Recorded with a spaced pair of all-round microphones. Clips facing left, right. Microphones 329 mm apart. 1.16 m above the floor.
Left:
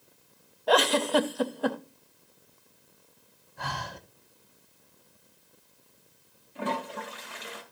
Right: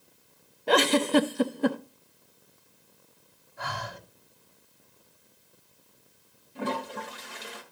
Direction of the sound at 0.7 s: 35° right (ahead or behind).